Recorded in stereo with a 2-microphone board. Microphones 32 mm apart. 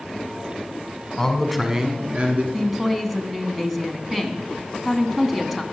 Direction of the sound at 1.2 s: 15° left (ahead or behind).